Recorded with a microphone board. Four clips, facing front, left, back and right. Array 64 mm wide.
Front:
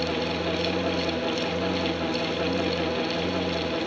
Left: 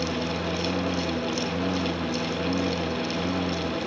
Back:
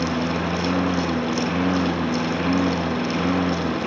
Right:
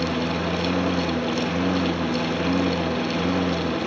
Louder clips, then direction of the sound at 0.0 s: Right 4 dB, back 4 dB; 160° right.